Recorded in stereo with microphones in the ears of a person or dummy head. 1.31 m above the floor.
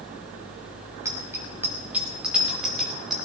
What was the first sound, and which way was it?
A bicycle bell, 15° right (ahead or behind).